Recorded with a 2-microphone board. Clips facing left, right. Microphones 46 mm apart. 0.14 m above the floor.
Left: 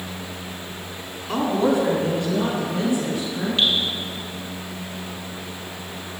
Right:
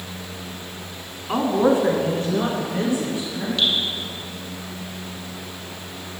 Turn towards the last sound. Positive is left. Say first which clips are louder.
# left 1 dB
turn(degrees=25)  # may be behind; listen again after turning